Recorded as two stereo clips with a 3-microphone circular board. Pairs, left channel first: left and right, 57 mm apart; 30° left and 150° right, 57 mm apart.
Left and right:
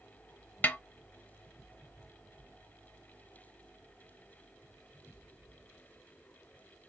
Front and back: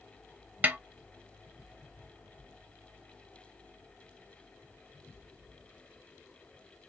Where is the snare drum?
150° left, 0.6 m.